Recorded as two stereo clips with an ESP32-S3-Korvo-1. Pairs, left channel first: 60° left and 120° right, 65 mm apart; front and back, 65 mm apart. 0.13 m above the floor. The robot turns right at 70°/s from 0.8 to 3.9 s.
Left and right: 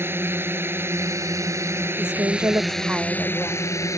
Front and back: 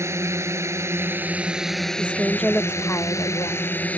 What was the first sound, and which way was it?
A drone, 160° right.